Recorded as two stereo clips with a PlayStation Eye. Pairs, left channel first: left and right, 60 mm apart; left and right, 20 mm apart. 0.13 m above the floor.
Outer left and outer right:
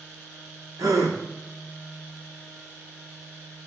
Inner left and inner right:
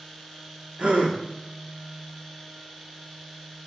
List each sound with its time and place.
0.8 s a gasp: 80° right, 2 m